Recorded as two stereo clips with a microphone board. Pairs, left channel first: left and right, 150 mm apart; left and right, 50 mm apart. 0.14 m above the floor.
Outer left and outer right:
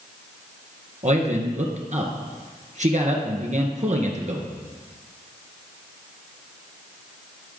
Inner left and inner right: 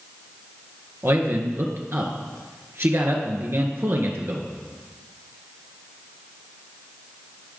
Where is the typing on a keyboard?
I don't hear typing on a keyboard.